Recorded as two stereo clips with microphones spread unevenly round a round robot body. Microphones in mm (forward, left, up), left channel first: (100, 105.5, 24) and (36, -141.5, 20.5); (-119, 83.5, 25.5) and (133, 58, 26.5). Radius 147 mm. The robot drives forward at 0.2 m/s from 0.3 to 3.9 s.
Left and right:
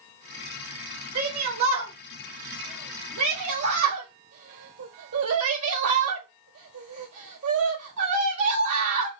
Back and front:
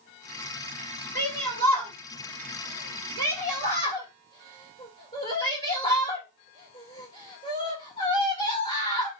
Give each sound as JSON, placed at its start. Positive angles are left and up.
{"t": 1.1, "sound": "a shout", "azimuth_deg": -100, "distance_m": 2.0}